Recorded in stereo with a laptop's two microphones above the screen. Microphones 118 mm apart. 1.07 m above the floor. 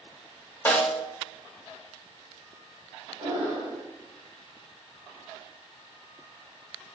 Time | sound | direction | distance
0.7 | a snare drum | 20° left (ahead or behind) | 0.9 m
3.2 | breathing | 65° right (ahead or behind) | 1.7 m